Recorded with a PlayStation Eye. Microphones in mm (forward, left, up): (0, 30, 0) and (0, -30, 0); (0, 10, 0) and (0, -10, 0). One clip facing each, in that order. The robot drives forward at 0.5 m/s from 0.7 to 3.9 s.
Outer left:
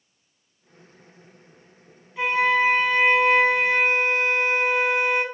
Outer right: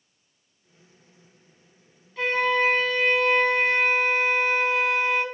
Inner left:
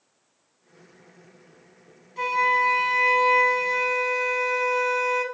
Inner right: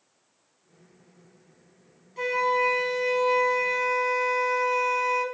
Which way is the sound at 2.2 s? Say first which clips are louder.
Outer left 2 dB, inner left 3 dB; 10° left (ahead or behind).